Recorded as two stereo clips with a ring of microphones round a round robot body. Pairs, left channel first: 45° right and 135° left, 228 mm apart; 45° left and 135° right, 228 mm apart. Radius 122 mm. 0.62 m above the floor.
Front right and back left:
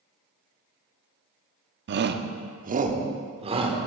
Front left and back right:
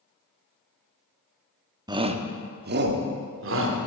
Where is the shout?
155° left, 0.9 m; by 3.8 s 160° right, 1.6 m.